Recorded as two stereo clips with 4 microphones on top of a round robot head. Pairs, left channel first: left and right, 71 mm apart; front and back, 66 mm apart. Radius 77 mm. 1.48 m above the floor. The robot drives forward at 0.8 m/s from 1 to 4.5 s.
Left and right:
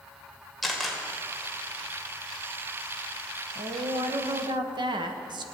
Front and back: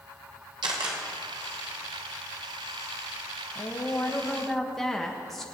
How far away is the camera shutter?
About 2.0 m.